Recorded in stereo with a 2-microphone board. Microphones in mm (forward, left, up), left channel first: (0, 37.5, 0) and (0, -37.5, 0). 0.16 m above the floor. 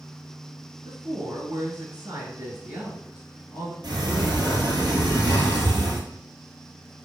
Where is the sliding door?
80° right, 1.3 m.